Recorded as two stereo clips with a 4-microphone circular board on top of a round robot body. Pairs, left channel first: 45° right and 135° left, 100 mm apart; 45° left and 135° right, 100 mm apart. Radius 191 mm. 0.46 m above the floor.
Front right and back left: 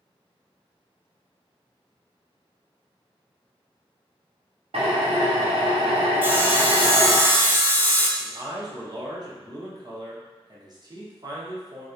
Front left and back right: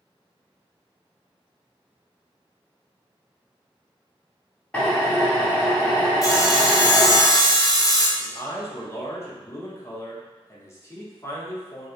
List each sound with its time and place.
4.7 s a drill: 120° left, 1.2 m
6.2 s sawing: 75° left, 0.8 m
8.2 s a man speaking: 100° left, 1.2 m